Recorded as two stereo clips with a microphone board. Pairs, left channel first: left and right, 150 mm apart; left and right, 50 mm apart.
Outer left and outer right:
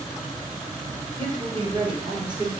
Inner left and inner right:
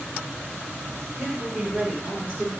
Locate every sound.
1.2 s a woman speaking: 35° right (ahead or behind), 2.5 m; by 2.5 s 25° right (ahead or behind), 1.8 m